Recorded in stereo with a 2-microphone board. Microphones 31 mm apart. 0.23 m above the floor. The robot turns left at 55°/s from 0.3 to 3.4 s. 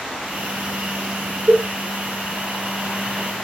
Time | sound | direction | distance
1.5 | a cowbell | 80° right | 1.6 m